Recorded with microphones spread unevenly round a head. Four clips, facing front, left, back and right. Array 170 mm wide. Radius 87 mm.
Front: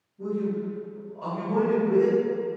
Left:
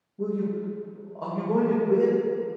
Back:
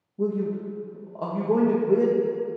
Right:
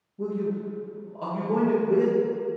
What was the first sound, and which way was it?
A man speaking, 175° left.